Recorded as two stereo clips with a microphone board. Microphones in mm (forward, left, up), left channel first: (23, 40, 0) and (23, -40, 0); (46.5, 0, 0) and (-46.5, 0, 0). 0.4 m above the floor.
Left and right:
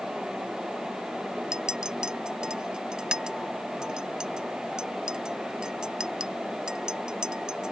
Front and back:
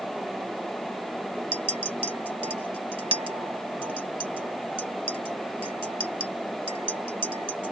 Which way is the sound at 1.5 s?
170° right.